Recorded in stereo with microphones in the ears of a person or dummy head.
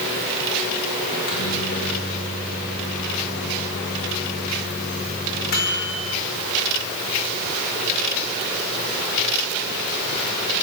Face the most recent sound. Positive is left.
turn(degrees=55)  # may be behind; listen again after turning